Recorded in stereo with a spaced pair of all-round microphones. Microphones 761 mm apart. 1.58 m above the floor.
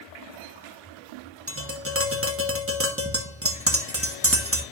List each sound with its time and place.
1.5 s tapping: 20° right (ahead or behind), 1.2 m